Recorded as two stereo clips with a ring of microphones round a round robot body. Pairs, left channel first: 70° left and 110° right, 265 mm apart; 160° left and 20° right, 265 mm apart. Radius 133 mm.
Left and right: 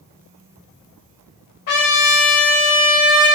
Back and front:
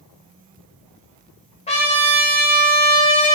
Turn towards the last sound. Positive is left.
turn(degrees=90)